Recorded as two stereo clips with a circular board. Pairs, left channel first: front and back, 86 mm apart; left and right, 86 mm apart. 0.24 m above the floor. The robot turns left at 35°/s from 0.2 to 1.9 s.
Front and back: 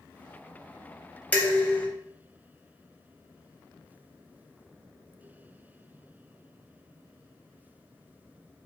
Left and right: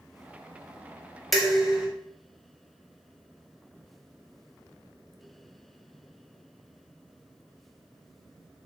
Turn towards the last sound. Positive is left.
turn(degrees=-15)